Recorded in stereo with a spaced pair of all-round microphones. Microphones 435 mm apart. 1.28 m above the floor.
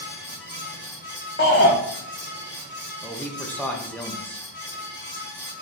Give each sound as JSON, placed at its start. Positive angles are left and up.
{"t": 0.0, "sound": "a fan", "side_deg": 25, "distance_m": 2.0}
{"t": 1.4, "sound": "a shout", "side_deg": 25, "distance_m": 0.6}
{"t": 3.0, "sound": "a man speaking", "side_deg": 5, "distance_m": 0.6}